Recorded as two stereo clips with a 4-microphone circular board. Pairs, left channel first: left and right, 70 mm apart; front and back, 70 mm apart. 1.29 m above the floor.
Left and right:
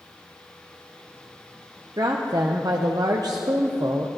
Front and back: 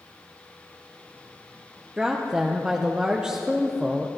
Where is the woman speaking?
100° right, 0.9 m.